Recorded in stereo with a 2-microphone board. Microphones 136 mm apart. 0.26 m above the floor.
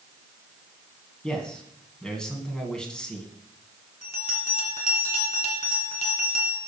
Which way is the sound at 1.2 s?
5° left (ahead or behind).